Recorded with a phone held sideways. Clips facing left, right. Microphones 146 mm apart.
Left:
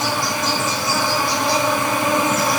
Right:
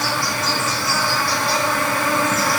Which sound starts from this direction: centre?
An insect, at 0.0 s.